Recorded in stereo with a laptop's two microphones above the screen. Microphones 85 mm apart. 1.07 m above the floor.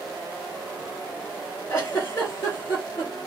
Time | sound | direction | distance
1.7 | a giggle | 30° left (ahead or behind) | 1.6 m